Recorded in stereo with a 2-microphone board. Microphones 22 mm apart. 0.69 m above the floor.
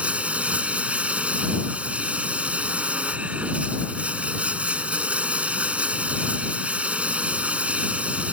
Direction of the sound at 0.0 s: 60° right (ahead or behind).